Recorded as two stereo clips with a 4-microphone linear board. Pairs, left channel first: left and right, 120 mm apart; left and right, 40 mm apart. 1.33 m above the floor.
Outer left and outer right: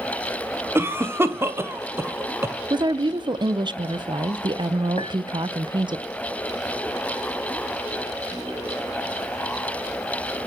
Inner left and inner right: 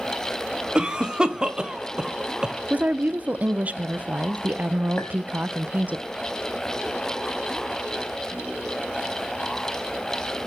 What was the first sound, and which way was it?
A cough, 20° right (ahead or behind).